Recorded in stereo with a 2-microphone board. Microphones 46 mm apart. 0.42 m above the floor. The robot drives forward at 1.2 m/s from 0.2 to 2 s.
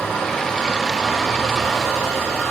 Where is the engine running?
20° left (ahead or behind), 7 m; by 2.5 s 15° left (ahead or behind), 9 m.